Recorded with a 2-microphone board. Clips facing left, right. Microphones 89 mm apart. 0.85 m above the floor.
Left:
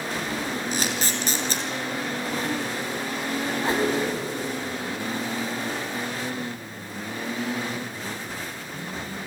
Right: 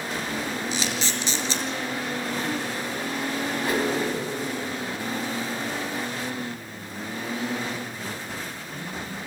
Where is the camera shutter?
50° left (ahead or behind), 2.5 m.